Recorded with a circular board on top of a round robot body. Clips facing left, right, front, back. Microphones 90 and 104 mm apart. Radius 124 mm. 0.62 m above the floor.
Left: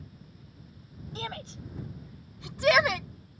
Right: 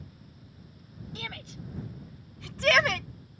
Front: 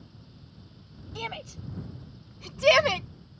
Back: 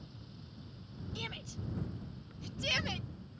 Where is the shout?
35° left; by 3.1 s 5° left.